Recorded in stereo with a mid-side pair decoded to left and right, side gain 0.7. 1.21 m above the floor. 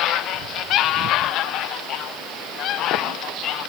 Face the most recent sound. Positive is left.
No sound to turn to.